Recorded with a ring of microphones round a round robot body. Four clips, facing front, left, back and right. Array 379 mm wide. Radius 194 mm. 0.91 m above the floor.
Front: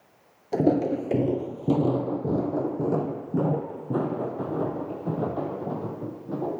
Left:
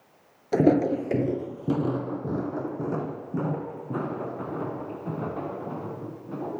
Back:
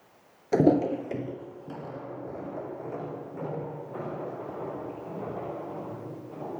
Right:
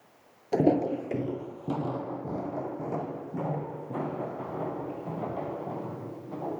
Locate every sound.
0.5 s footsteps: 140° left, 0.9 m; by 6.6 s 15° left, 8 m